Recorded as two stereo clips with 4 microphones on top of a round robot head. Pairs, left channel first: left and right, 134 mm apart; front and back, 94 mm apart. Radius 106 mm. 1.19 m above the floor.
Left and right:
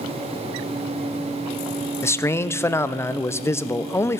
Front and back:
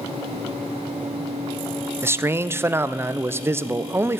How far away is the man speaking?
About 0.5 m.